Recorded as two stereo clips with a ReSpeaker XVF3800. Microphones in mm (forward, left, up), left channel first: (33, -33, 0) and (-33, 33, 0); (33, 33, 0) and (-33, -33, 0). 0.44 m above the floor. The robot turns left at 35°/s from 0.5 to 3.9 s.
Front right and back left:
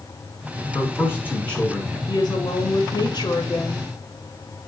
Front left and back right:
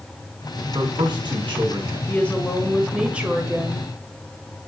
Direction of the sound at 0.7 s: 90° right.